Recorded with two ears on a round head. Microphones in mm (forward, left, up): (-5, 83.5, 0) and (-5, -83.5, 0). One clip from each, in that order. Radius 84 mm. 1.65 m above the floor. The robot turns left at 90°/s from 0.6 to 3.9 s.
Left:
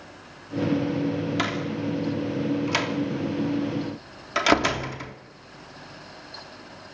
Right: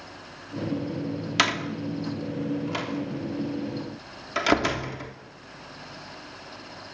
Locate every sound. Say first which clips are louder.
1.4 s a door slam: right 3 dB; 60° right (ahead or behind), 3 m; by 5.2 s 15° left (ahead or behind), 3 m